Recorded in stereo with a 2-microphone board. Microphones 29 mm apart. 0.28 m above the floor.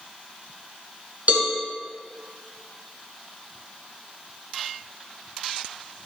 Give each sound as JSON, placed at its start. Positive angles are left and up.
{"t": 1.3, "sound": "a cowbell", "side_deg": -55, "distance_m": 2.0}